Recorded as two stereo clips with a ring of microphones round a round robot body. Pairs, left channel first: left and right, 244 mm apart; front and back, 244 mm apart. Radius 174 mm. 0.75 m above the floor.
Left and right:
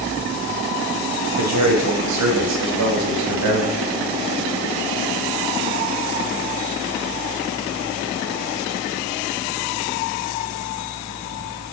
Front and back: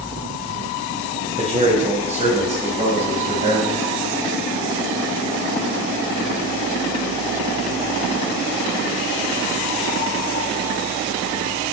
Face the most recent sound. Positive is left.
turn(degrees=-110)